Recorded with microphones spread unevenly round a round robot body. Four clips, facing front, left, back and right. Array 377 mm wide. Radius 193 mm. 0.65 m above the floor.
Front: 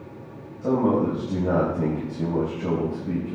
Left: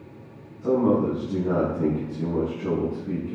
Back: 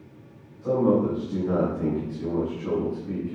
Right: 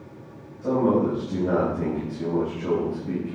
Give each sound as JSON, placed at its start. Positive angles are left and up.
{"t": 0.6, "sound": "a man speaking", "azimuth_deg": -10, "distance_m": 4.5}